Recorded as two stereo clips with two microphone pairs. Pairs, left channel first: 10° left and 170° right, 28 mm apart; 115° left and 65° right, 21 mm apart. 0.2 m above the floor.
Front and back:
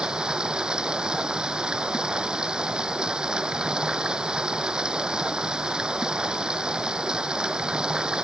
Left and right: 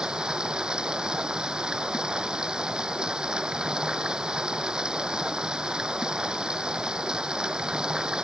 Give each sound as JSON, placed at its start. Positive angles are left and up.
{"t": 0.0, "sound": "running water", "azimuth_deg": -110}